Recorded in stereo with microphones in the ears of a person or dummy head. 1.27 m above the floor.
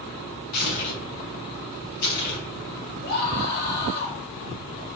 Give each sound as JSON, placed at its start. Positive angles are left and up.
{"t": 0.5, "sound": "tearing paper", "side_deg": 50, "distance_m": 5.5}
{"t": 3.0, "sound": "a scream", "side_deg": 55, "distance_m": 6.0}